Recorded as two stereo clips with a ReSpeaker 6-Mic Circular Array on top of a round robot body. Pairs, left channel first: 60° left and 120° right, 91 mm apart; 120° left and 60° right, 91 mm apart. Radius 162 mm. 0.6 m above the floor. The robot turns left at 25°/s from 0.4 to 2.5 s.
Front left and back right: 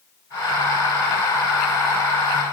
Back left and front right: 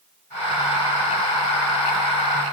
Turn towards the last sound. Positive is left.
No sound to turn to.